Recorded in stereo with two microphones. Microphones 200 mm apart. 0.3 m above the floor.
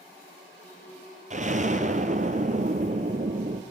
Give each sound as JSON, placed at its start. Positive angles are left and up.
{"t": 1.3, "sound": "an explosion", "side_deg": -40, "distance_m": 2.5}